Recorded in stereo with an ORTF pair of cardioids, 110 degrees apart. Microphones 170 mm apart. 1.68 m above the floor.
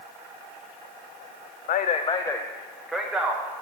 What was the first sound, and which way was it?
A man speaking, 60° left.